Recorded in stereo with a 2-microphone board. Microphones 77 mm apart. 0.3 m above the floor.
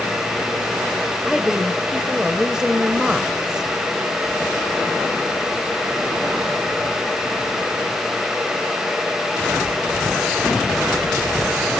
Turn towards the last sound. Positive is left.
turn(degrees=-10)  # may be behind; listen again after turning